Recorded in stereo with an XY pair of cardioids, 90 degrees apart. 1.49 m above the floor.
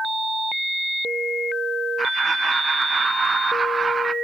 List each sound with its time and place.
2.0 s laughter: 35° right, 1.4 m